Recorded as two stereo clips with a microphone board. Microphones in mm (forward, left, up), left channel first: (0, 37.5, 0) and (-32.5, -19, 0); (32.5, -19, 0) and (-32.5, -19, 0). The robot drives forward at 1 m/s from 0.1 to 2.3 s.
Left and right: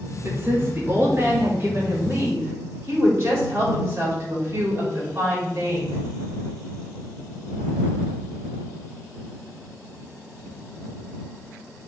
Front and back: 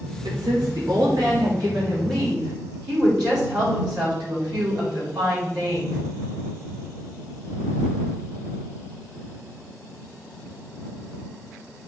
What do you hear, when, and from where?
0.2 s a woman speaking: 175° right, 2.5 m